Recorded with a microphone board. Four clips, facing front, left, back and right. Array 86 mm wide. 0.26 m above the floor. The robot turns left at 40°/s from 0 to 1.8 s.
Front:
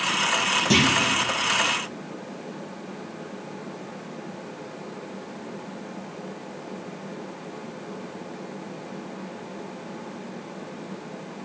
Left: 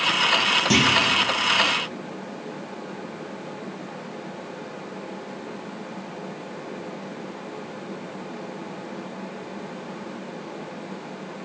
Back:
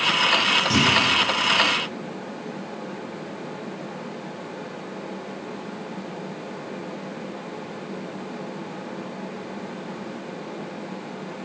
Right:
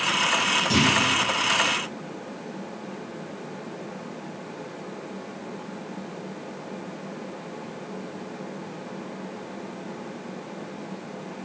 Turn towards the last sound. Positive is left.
turn(degrees=15)